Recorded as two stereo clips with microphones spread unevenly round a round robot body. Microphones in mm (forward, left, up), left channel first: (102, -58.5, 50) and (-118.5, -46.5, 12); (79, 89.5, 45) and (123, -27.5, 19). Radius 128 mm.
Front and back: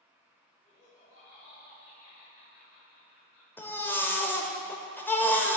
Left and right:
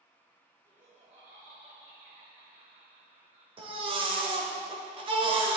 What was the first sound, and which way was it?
Laughter, 70° right.